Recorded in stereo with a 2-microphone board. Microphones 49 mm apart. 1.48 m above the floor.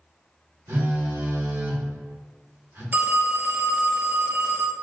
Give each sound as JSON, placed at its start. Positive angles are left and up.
{"t": 0.7, "sound": "a phone buzzing", "side_deg": -85, "distance_m": 1.9}
{"t": 2.9, "sound": "a phone ringing", "side_deg": -45, "distance_m": 0.5}